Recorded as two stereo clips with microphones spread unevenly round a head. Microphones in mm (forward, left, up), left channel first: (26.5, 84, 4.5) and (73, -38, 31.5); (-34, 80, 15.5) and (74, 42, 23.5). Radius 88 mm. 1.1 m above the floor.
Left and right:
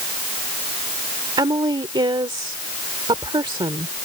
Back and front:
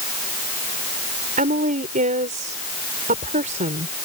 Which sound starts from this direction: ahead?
A woman speaking, at 1.4 s.